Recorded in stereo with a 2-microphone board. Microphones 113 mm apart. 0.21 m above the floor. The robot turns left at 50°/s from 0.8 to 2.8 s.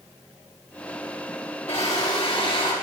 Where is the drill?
100° left, 7.5 m; by 2.7 s 45° left, 7.5 m.